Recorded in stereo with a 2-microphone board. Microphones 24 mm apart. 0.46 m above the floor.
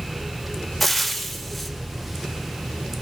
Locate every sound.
0.8 s frying: 5° left (ahead or behind), 1.8 m